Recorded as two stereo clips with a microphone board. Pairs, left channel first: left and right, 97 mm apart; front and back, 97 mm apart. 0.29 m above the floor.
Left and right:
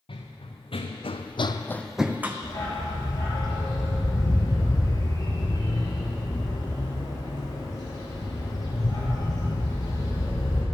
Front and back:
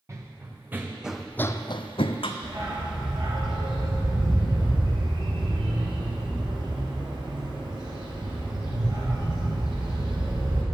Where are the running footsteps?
120° left, 1.8 m; by 2.3 s 20° right, 1.0 m.